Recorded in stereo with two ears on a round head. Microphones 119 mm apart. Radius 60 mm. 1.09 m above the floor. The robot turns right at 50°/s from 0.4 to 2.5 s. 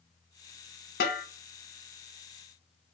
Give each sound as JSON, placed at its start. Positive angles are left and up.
{"t": 1.0, "sound": "a snare drum", "side_deg": 85, "distance_m": 0.7}